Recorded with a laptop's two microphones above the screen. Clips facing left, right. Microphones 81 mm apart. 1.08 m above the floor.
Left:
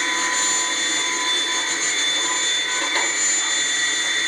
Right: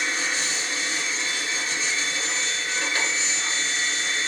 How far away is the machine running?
About 1.6 m.